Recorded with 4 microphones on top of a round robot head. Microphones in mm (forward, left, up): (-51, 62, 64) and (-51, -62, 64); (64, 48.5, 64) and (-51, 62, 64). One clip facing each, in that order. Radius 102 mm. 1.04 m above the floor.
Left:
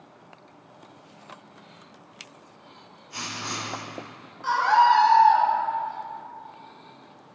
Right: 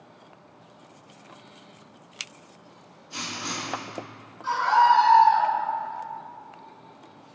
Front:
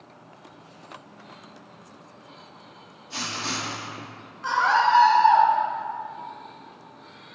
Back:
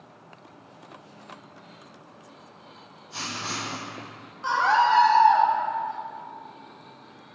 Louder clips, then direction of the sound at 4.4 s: Left 1 dB, even; 110° left.